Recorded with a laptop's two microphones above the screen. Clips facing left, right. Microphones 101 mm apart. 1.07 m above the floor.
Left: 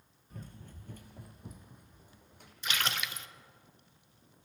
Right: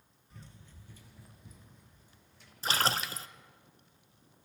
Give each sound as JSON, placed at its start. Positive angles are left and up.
{"t": 0.3, "sound": "running footsteps", "side_deg": 50, "distance_m": 1.5}
{"t": 2.6, "sound": "a splash", "side_deg": -35, "distance_m": 0.6}